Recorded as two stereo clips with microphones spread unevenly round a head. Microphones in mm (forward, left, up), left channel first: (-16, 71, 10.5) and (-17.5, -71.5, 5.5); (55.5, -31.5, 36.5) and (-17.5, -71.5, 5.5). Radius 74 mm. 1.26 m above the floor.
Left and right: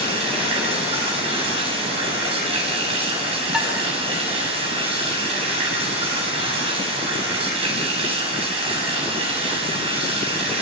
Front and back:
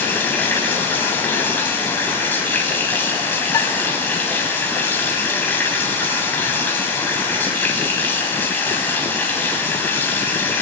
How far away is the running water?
About 8 m.